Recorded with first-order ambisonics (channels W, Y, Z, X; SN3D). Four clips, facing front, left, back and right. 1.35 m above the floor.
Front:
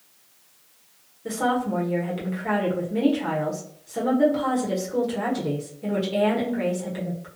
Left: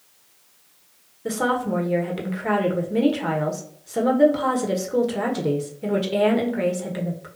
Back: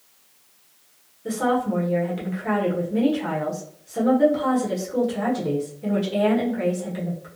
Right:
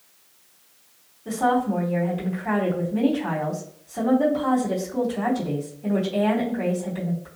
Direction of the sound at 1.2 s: 85° left.